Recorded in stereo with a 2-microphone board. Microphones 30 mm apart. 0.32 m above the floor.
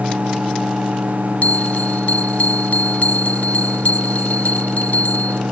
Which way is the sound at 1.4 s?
55° left (ahead or behind).